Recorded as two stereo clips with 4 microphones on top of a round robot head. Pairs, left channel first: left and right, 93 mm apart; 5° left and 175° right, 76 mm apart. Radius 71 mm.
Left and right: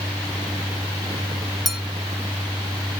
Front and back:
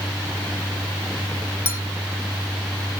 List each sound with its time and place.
1.6 s a clink: 5° right, 0.7 m